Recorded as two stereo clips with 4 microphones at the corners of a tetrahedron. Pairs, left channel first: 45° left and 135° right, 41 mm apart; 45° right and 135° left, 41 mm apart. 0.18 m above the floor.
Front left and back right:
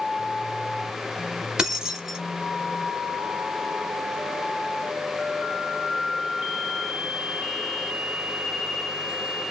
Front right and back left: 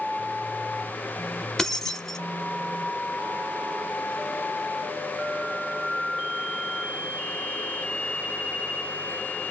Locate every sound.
1.6 s keys jangling: 95° right, 0.7 m